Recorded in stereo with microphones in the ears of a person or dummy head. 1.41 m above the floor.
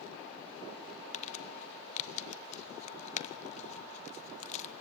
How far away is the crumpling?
About 1.8 m.